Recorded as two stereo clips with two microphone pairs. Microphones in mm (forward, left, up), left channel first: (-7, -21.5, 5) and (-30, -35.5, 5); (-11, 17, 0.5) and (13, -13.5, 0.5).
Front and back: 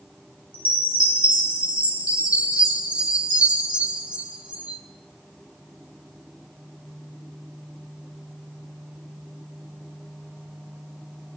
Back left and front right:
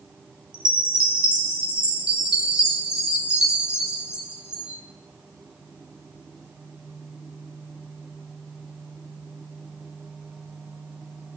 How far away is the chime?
About 3.5 m.